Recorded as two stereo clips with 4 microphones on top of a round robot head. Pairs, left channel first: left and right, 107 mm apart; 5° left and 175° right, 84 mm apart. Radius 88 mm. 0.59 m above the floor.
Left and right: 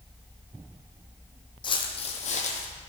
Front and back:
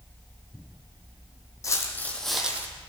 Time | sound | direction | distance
1.6 | footsteps | 50° left | 1.2 m